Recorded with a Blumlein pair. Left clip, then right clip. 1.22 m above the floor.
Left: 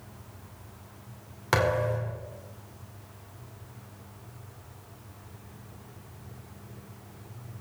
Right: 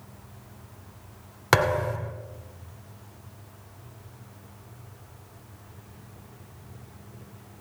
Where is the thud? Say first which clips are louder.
Right 3 dB; 20° right, 2 m.